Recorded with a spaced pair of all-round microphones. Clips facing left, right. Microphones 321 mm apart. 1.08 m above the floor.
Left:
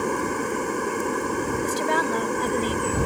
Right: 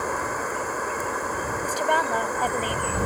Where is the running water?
40° left (ahead or behind).